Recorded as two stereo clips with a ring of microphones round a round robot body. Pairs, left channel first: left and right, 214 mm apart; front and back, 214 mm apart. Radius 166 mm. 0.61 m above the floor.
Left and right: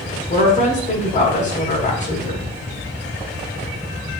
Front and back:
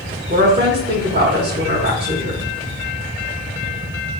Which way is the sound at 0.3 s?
145° left.